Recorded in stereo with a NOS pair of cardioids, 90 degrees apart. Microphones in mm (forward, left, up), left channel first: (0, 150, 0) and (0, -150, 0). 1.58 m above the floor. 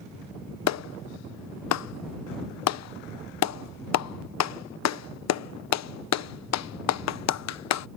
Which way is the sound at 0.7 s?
60° left.